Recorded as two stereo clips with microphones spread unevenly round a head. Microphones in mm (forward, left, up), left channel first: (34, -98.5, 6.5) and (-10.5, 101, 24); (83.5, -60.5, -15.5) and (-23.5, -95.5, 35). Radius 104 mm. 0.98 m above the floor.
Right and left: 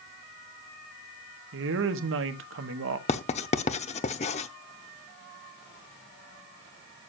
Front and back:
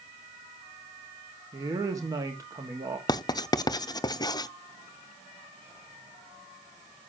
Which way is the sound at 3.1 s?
55° right.